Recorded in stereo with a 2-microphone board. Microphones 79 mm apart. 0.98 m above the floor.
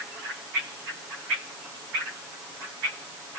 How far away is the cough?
I don't hear a cough.